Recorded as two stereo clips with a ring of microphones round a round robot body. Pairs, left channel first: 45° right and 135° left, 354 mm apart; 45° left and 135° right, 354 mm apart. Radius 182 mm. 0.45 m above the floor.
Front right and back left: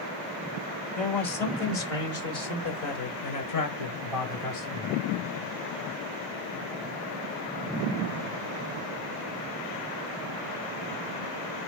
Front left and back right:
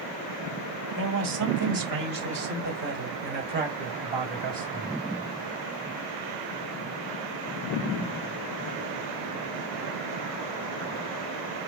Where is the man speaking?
105° right, 1.7 m; by 5.0 s 65° right, 4 m.